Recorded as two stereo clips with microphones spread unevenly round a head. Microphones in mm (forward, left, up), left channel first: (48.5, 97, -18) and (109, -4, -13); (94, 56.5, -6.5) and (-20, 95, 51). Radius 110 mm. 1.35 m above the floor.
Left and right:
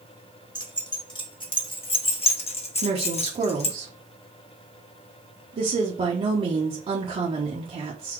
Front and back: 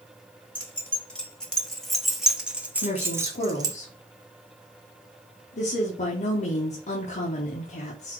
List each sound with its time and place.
0.6 s keys jangling: 65° left, 1.7 m; by 3.8 s 145° left, 0.8 m
2.8 s a woman speaking: 25° right, 1.1 m